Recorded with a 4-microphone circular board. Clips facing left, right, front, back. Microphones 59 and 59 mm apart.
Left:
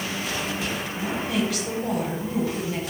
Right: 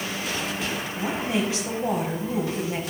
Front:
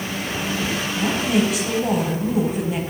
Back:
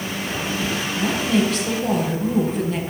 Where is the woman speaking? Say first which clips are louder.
Even, even; 65° right, 1.2 m.